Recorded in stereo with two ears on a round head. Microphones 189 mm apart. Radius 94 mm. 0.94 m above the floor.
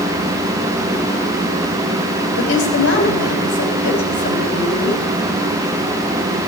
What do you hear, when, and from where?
2.4 s a woman speaking: 65° left (ahead or behind), 7 m